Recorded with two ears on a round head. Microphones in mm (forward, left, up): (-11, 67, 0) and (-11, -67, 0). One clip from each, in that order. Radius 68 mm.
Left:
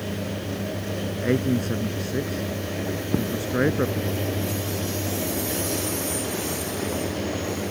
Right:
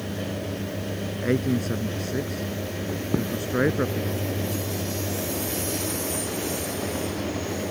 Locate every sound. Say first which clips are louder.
1.2 s a man speaking: left 1 dB; 5° right (ahead or behind)
3.1 s footsteps: even; 65° right (ahead or behind)